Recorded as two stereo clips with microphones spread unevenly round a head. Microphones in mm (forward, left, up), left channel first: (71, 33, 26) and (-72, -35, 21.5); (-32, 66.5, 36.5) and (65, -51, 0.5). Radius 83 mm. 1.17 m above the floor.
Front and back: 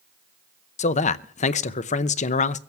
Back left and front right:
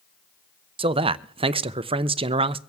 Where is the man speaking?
15° right, 0.6 m.